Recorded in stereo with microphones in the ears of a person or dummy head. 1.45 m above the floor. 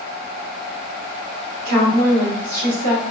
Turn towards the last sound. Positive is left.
turn(degrees=-50)  # may be behind; listen again after turning